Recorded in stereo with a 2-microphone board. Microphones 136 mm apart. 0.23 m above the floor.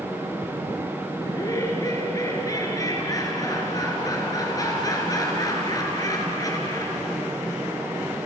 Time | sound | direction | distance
1.3 | laughter | 25° left (ahead or behind) | 4.5 m